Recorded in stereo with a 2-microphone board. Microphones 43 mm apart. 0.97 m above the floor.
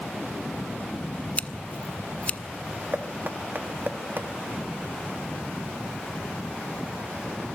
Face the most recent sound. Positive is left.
turn(degrees=-45)  # may be behind; listen again after turning